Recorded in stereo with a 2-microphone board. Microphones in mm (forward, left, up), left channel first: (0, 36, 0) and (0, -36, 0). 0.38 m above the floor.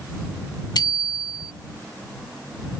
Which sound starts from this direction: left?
A bicycle bell, at 0.8 s.